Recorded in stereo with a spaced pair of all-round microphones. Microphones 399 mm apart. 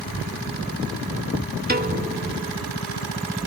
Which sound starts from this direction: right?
A piano, at 1.7 s.